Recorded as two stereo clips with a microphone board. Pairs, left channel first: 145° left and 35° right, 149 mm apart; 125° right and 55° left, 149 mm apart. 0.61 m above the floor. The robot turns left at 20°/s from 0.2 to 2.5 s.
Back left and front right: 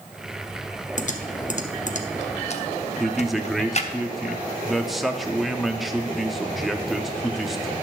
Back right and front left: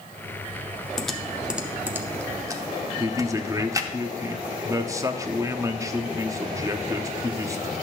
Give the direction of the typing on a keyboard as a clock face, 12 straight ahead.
7 o'clock.